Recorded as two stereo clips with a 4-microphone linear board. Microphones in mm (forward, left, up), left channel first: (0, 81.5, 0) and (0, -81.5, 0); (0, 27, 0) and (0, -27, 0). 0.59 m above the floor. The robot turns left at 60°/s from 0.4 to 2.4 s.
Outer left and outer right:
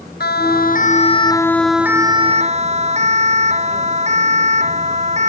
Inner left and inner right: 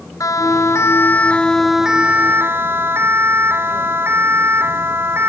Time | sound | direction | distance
0.2 | a siren | 80° left | ?